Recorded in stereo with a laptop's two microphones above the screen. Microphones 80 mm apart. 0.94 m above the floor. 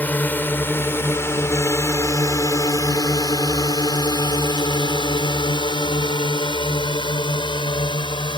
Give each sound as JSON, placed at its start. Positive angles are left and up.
{"t": 0.0, "sound": "a drone", "side_deg": 20}